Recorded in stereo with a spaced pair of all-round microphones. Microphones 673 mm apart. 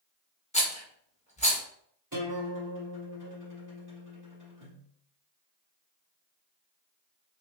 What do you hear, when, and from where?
0.5 s a rattle: 10° left (ahead or behind), 1.0 m
2.1 s a guitar: 25° right (ahead or behind), 2 m